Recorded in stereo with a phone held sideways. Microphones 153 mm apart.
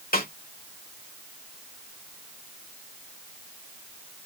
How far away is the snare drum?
About 2 m.